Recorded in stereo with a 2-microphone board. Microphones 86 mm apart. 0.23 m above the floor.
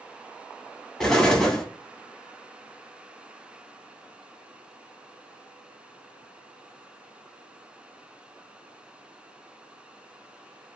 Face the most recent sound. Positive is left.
turn(degrees=5)  # may be behind; listen again after turning